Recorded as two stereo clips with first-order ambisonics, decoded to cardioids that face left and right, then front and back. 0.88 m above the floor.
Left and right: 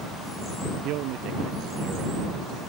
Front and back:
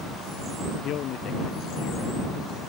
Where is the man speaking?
55° right; by 2.6 s 50° right.